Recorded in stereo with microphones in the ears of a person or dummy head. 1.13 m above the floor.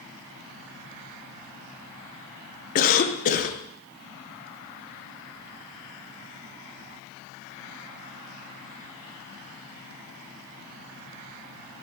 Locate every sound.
2.8 s a cough: 40° left (ahead or behind), 0.6 m